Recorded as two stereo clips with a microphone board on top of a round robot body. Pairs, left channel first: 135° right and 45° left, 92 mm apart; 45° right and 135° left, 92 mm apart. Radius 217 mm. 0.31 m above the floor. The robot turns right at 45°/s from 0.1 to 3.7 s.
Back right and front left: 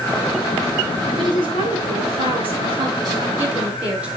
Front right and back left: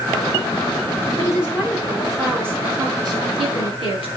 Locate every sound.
1.2 s a woman speaking: 10° left, 7 m; by 4.1 s 125° left, 7 m